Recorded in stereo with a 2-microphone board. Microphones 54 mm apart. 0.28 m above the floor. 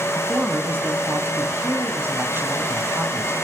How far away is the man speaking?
About 2.5 m.